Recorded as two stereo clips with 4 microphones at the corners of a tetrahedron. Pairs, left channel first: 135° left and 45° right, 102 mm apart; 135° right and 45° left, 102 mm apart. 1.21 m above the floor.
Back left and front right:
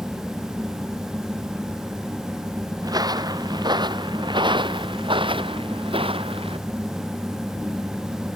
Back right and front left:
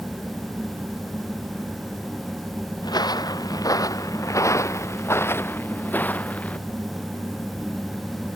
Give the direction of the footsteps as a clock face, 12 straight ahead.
3 o'clock.